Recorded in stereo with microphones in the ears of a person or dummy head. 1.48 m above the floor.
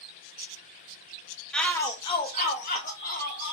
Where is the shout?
Centre (ahead or behind), 0.5 m; by 3.5 s 55° left (ahead or behind), 1.3 m.